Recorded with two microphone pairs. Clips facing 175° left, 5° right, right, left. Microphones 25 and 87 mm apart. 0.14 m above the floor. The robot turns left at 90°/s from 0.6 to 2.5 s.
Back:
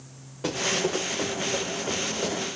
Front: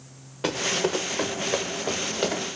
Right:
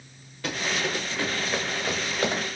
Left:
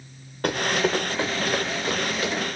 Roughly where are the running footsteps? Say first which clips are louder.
Front 1 dB, left 6 dB; ahead left.